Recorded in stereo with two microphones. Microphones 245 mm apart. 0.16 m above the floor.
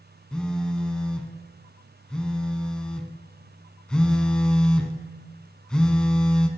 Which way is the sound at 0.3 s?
5° left (ahead or behind).